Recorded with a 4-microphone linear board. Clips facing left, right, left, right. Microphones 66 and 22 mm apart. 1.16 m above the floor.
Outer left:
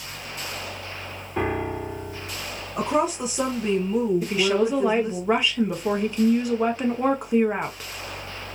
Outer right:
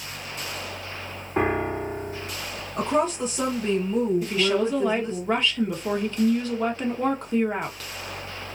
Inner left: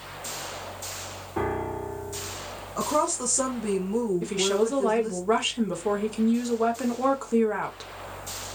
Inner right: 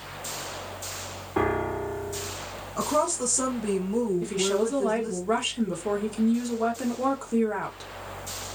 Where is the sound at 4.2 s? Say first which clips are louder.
Outer left 1 dB, inner left 1 dB; 15° left (ahead or behind), 0.9 m.